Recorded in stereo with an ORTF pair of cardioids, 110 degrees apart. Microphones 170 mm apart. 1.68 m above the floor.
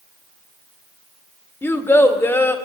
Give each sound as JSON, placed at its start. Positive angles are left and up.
{"t": 1.6, "sound": "a child speaking", "azimuth_deg": 15, "distance_m": 1.4}